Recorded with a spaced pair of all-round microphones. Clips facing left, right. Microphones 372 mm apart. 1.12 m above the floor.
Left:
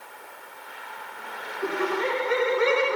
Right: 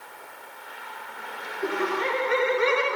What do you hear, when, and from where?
1.6 s laughter: 50° left (ahead or behind), 1.3 m